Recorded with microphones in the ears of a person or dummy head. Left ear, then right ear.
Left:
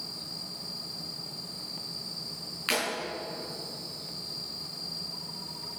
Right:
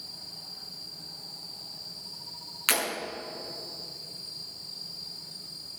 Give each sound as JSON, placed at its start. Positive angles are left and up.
{"t": 2.7, "sound": "breaking glass", "side_deg": -20, "distance_m": 6.0}